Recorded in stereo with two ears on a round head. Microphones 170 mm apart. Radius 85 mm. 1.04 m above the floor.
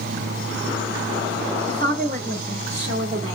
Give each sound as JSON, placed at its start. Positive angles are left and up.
{"t": 1.7, "sound": "a woman speaking", "side_deg": -50, "distance_m": 3.0}